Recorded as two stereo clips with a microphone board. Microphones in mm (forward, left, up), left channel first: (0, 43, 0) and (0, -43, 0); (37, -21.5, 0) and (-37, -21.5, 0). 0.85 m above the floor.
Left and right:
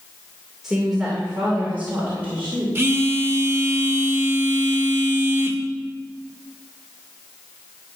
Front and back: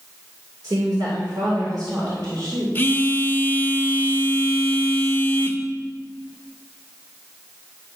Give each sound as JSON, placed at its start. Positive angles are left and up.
{"t": 0.6, "sound": "a woman speaking", "azimuth_deg": -175, "distance_m": 2.5}
{"t": 2.8, "sound": "a phone buzzing", "azimuth_deg": -50, "distance_m": 0.9}